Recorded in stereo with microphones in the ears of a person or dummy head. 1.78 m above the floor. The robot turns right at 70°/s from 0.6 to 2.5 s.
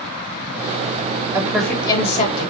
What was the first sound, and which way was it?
A woman speaking, 15° right.